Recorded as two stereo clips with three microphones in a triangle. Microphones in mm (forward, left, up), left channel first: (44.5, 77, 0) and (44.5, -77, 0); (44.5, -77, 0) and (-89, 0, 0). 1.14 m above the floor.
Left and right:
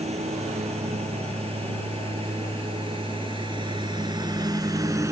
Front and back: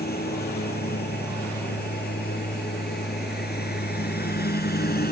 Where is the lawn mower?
40° right; by 5.1 s 15° right.